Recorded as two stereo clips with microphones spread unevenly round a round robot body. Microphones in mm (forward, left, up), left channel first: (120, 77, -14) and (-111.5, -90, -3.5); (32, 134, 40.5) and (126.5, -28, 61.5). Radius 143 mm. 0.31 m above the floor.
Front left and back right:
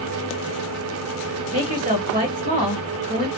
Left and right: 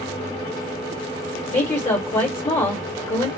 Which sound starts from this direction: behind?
A woman speaking, at 1.5 s.